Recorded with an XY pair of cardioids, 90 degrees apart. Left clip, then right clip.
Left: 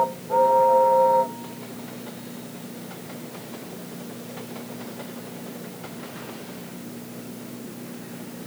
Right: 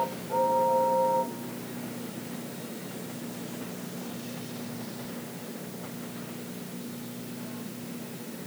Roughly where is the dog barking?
No dog barking in this recording.